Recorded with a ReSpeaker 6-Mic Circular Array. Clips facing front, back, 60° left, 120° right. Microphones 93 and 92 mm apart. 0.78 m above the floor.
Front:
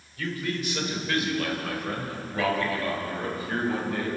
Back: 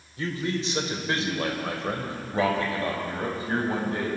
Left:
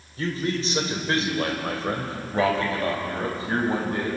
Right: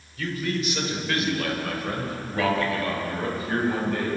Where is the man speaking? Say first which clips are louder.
Back 2 dB, left 2 dB; 115° left, 3.5 m; by 4.1 s 120° left, 6.5 m.